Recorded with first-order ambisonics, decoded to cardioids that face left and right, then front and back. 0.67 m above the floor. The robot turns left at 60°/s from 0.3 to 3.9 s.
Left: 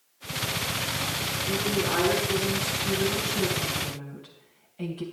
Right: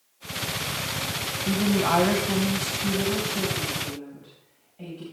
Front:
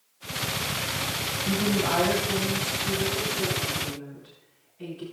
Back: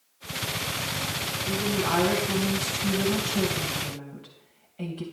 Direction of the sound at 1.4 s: 50° right.